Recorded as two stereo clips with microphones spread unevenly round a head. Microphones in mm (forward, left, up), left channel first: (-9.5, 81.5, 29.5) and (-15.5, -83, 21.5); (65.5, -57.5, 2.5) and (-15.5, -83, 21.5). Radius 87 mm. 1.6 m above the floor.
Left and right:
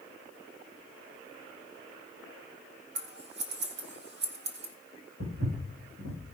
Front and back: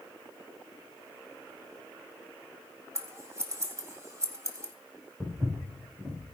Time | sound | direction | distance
3.0 | scissors | 115° right | 1.9 m
5.2 | footsteps | 90° right | 6.5 m